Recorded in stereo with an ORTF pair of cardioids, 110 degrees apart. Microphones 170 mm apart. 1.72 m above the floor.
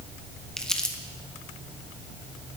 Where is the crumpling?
5° left, 1.1 m.